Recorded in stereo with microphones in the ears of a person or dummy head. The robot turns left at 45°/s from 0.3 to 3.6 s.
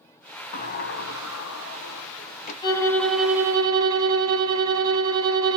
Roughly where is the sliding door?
Behind left.